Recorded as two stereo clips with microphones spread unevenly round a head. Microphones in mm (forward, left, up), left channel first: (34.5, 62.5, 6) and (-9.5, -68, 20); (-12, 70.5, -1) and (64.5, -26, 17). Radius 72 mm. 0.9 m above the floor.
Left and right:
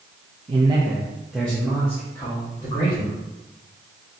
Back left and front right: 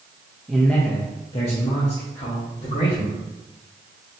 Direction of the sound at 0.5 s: 145° right.